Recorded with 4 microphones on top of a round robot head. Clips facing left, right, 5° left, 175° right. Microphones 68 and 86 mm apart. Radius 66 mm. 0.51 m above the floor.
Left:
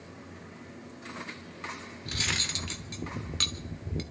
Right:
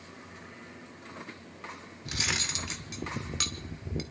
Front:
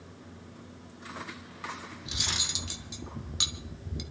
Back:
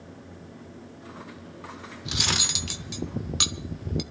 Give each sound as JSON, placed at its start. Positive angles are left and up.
{"t": 2.0, "sound": "cutlery clinking", "azimuth_deg": -170, "distance_m": 1.0}